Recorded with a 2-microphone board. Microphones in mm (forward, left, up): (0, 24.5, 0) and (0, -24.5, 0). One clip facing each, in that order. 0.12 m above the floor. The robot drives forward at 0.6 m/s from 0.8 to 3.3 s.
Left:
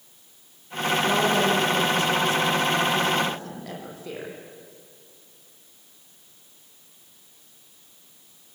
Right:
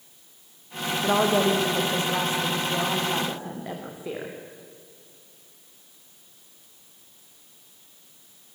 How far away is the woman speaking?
About 5 m.